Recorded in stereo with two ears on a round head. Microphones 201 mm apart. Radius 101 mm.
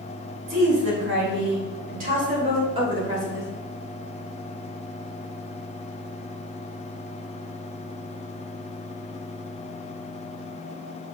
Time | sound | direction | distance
0.5 | a woman speaking | 60° right (ahead or behind) | 2.5 m